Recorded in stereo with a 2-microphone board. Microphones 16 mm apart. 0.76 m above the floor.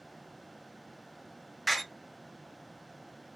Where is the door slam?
5° right (ahead or behind), 0.6 m.